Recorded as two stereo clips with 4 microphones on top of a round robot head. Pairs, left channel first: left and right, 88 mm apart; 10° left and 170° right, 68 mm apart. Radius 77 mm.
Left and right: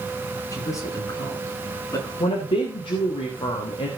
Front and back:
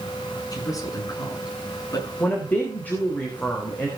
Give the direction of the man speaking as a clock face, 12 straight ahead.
11 o'clock.